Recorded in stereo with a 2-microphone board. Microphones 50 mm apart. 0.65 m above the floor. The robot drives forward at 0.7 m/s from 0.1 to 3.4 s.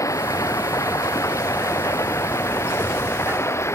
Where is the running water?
75° left (ahead or behind); by 3.8 s 55° left (ahead or behind).